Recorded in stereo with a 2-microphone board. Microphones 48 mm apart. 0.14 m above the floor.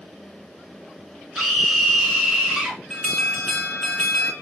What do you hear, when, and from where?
1.4 s a scream: 5° right (ahead or behind), 1.4 m
2.9 s an alarm: 15° left (ahead or behind), 1.4 m